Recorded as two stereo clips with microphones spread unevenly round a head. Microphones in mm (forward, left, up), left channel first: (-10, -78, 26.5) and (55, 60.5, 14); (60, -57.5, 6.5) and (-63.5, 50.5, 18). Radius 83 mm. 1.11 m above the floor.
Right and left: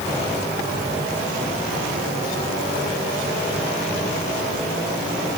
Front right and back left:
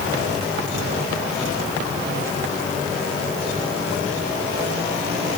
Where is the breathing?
No breathing in this recording.